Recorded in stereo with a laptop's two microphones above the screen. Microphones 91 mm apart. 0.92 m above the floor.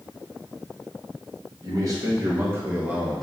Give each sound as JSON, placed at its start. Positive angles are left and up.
{"t": 1.6, "sound": "a man speaking", "side_deg": -45, "distance_m": 1.6}